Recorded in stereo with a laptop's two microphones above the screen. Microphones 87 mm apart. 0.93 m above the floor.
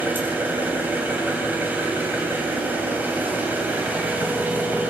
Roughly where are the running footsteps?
I don't hear running footsteps.